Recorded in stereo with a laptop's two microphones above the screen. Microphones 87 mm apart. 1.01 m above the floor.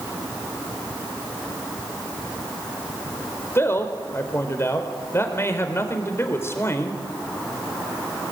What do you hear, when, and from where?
3.5 s a man speaking: 30° left (ahead or behind), 4 m